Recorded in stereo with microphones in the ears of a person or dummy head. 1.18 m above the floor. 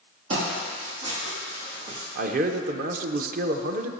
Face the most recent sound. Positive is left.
turn(degrees=-45)  # may be behind; listen again after turning